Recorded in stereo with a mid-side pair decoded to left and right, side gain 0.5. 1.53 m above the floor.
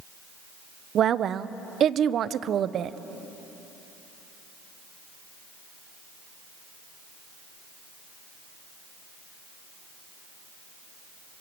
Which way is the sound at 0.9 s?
55° right.